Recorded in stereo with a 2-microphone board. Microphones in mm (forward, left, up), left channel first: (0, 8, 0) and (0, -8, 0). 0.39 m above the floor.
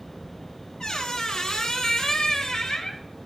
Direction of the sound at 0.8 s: 45° left (ahead or behind).